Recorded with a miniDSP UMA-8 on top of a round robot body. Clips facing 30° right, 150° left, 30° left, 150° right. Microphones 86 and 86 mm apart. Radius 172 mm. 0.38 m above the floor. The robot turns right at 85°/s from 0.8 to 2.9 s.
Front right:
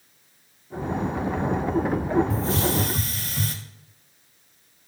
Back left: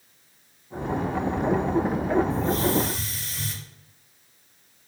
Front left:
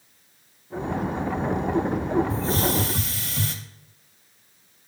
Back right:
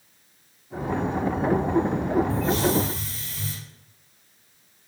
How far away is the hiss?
About 0.5 m.